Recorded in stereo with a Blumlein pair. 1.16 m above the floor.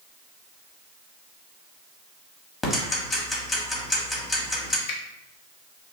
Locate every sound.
2.6 s ticking: 15° left, 1.0 m
4.9 s a finger snap: 50° left, 0.8 m